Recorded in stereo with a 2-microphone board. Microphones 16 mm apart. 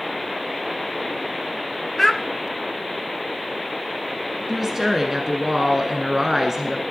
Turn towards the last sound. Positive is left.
turn(degrees=-20)  # may be behind; listen again after turning